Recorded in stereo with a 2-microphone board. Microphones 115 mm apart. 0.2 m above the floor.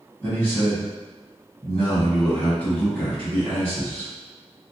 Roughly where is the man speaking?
Centre.